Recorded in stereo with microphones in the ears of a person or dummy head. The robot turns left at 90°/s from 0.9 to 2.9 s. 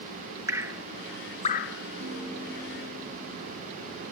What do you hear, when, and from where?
0.5 s dripping: 15° right (ahead or behind), 1.1 m; by 1.8 s 60° left (ahead or behind), 1.1 m
2.0 s a piano: 70° right, 7.5 m; by 3.6 s 150° right, 7.5 m